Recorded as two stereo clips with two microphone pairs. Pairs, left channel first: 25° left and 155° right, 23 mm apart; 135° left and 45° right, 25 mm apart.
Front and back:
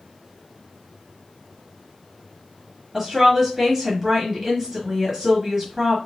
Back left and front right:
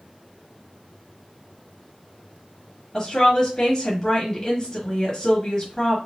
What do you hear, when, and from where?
2.9 s a woman speaking: 155° left, 1.3 m